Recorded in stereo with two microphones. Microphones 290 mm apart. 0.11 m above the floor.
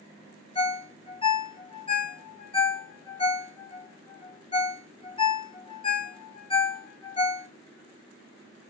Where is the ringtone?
20° left (ahead or behind), 0.5 m.